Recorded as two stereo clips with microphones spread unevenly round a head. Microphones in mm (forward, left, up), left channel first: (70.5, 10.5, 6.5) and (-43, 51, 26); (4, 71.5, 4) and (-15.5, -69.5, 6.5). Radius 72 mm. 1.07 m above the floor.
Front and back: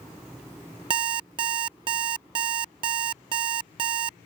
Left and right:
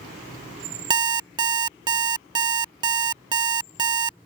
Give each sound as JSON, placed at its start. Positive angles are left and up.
{"t": 0.9, "sound": "an alarm clock", "azimuth_deg": -155}